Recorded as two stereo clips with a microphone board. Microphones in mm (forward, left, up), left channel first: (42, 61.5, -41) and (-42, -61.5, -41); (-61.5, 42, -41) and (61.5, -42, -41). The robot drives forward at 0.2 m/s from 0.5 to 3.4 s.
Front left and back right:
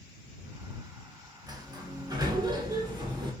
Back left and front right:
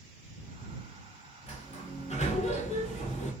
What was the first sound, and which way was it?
A sliding door, 175° left.